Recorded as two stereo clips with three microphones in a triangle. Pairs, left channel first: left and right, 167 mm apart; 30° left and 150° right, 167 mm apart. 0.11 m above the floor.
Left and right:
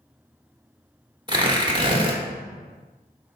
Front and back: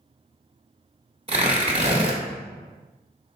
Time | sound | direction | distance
1.3 | tearing paper | 135° right | 1.1 m